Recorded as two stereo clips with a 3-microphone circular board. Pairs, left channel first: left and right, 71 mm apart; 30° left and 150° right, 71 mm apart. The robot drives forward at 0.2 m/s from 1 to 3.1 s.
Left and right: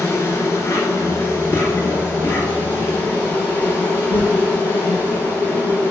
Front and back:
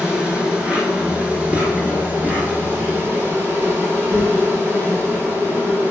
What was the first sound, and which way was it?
An insect, 135° left.